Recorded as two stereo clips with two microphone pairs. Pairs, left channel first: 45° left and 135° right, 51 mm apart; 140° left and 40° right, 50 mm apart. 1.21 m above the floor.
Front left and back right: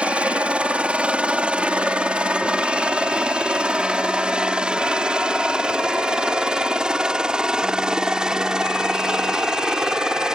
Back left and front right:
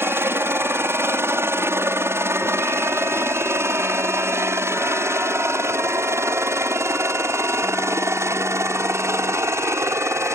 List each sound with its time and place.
0.0 s a helicopter: 70° right; by 10.4 s 55° right